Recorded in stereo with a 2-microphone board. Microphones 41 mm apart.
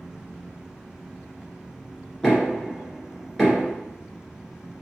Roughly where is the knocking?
Centre.